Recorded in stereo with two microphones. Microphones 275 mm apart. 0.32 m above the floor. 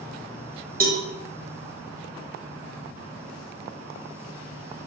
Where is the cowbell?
30° right (ahead or behind), 0.6 m.